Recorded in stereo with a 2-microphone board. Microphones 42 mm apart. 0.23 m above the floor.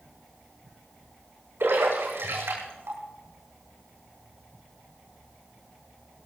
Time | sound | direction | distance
1.6 | a splash | 75° right (ahead or behind) | 9 m